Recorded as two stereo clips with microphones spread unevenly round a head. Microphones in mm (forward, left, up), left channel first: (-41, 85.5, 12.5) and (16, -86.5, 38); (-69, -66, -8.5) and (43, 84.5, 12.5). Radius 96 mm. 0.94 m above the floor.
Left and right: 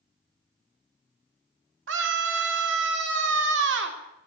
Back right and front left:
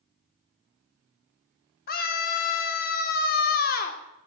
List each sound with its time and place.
1.9 s a scream: 90° right, 3 m